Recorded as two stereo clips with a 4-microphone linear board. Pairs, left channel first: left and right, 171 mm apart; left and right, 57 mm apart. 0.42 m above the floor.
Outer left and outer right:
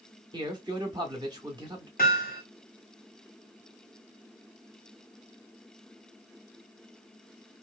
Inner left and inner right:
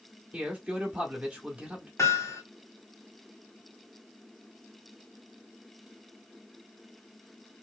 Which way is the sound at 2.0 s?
55° left (ahead or behind).